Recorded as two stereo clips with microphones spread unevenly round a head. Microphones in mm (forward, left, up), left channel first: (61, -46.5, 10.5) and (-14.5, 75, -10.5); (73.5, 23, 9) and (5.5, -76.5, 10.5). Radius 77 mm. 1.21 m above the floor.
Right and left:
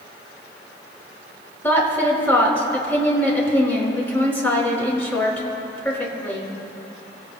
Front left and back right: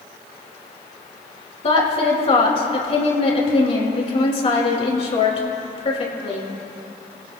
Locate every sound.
1.6 s a woman speaking: 20° left, 5 m